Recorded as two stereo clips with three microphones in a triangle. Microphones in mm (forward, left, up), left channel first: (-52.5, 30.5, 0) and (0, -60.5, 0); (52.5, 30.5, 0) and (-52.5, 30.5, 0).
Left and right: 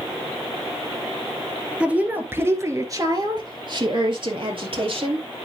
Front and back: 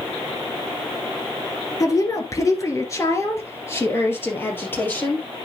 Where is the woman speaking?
10° left, 1.6 m; by 5.2 s 70° right, 3 m.